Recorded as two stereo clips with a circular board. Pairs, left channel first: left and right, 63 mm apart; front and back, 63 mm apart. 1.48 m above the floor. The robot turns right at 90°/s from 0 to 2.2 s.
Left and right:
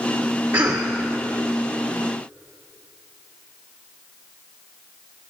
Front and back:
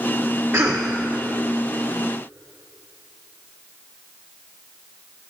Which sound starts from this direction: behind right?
A cough, at 0.5 s.